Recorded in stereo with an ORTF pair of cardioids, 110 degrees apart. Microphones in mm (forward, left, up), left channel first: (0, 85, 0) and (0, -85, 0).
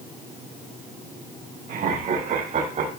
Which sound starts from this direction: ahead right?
Laughter, at 1.7 s.